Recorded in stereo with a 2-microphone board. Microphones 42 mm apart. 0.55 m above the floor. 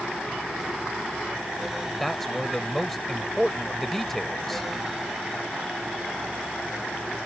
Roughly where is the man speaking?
Centre.